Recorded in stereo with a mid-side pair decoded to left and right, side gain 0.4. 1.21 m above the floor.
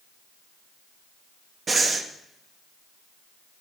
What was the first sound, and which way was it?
Breathing, 45° right.